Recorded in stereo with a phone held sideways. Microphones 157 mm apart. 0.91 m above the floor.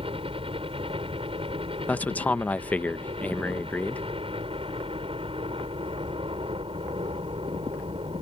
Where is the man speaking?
10° left (ahead or behind).